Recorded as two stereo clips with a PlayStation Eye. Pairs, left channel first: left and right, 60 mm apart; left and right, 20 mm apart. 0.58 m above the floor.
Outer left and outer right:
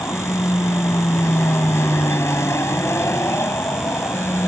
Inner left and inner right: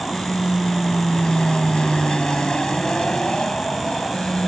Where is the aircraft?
50° left (ahead or behind); by 4.5 s 45° left (ahead or behind).